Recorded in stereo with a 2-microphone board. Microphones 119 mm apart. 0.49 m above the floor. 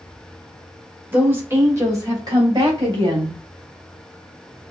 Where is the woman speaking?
15° right (ahead or behind), 1.7 m; by 3.4 s 45° right (ahead or behind), 2.5 m.